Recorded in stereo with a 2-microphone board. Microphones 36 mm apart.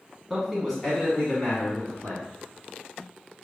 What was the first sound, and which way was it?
A man speaking, 15° right (ahead or behind).